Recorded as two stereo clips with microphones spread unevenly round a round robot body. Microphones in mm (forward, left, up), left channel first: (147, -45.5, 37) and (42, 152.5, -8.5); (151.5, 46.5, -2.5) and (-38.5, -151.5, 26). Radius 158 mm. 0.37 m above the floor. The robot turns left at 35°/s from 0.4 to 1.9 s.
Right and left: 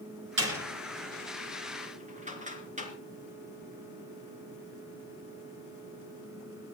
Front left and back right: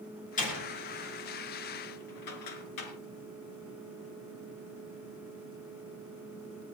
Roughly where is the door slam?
Behind left.